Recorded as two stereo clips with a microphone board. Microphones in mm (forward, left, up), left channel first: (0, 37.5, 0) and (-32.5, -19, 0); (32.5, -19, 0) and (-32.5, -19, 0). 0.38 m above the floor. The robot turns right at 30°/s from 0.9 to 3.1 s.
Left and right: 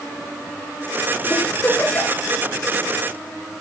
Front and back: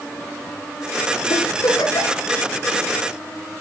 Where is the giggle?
10° right, 2.5 m; by 2.2 s 20° left, 2.5 m.